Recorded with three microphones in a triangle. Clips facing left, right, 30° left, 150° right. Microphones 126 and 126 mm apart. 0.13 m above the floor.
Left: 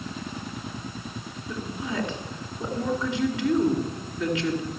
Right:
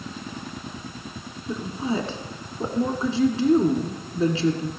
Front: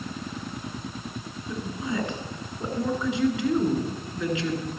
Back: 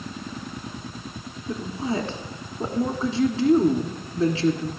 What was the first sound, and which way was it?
A woman speaking, 120° right.